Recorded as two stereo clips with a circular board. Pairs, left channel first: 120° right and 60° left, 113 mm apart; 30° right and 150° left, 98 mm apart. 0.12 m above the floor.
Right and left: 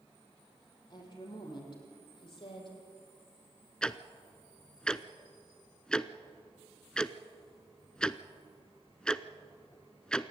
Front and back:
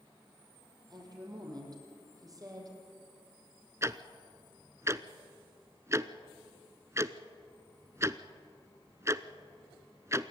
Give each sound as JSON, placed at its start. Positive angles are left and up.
{"t": 0.9, "sound": "a woman speaking", "azimuth_deg": -165, "distance_m": 5.5}
{"t": 3.8, "sound": "ticking", "azimuth_deg": 165, "distance_m": 0.6}